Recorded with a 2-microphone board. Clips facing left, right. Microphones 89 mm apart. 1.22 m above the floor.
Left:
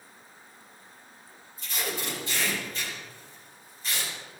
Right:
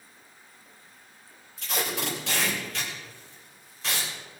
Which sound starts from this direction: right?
Tape being pulled, at 1.6 s.